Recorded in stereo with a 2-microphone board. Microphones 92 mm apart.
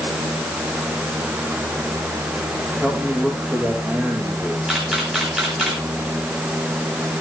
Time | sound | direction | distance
2.8 | a man speaking | 15° right (ahead or behind) | 6 m
4.7 | a camera shutter | 5° right (ahead or behind) | 4.5 m